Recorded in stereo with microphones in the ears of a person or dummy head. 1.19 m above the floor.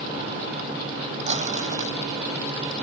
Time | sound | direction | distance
1.3 | crumpling | 45° right (ahead or behind) | ?